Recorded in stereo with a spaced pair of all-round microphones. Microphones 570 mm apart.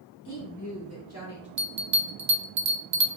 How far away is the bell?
About 0.5 m.